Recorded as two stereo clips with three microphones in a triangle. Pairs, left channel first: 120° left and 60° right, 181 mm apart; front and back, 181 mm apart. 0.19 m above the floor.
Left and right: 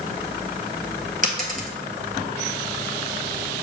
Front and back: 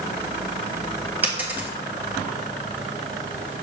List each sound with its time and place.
1.2 s a dropped coin: 100° right, 1.4 m